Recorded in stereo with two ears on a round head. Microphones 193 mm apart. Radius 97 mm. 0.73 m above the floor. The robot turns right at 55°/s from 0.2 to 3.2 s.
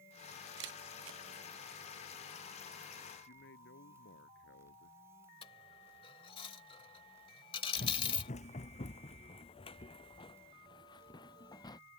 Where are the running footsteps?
40° left (ahead or behind); by 11.8 s 20° left (ahead or behind).